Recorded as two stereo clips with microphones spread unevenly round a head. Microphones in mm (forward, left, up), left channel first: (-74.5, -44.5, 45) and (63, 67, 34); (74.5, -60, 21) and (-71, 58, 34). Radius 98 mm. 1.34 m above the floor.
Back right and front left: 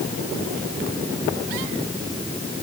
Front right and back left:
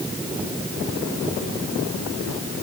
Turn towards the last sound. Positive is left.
No sound to turn to.